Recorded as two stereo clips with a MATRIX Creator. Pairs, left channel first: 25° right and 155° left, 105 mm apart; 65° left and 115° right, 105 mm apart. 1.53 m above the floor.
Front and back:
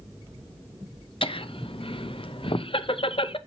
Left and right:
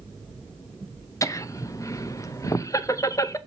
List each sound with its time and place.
1.2 s laughter: 10° left, 0.6 m